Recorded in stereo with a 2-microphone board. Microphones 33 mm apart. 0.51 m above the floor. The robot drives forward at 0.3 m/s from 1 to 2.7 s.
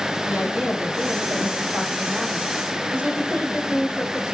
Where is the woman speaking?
70° right (ahead or behind), 2.5 m; by 4.3 s 65° right (ahead or behind), 2.5 m.